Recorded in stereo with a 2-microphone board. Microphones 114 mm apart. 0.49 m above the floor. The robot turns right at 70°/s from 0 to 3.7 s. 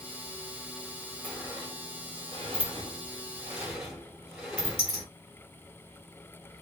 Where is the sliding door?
5° left (ahead or behind), 2.5 m; by 5.1 s 10° right (ahead or behind), 2.5 m.